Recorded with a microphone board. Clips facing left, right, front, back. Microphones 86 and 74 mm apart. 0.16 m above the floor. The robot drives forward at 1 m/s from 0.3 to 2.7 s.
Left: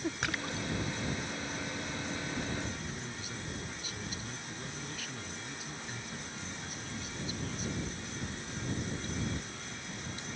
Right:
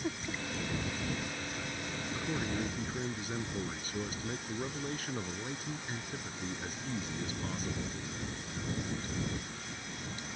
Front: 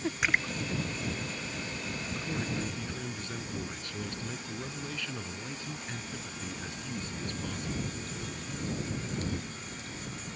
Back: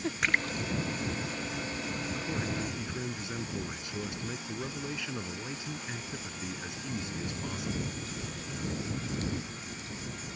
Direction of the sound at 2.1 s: 90° right.